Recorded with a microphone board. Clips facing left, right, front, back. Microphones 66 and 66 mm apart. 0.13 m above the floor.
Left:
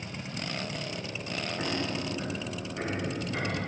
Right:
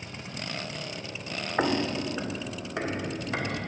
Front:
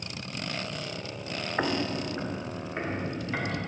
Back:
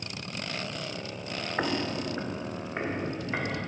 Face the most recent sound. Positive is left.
turn(degrees=-105)